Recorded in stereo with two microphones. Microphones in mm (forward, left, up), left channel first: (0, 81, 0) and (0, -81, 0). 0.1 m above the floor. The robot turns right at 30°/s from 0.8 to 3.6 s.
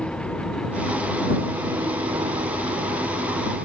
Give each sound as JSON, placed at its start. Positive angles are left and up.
{"t": 0.0, "sound": "an engine running", "azimuth_deg": 175}